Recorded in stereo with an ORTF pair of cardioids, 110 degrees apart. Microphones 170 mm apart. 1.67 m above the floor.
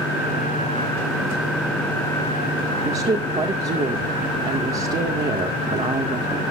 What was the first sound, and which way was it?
A woman speaking, 35° right.